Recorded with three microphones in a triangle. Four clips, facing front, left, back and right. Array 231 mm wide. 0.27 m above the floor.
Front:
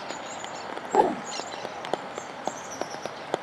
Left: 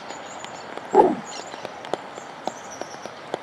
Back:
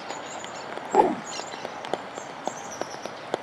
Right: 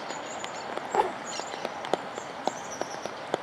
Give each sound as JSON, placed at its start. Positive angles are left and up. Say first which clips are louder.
{"t": 0.9, "sound": "a whoosh", "louder": "left 11 dB, back 2 dB", "azimuth_deg": 105}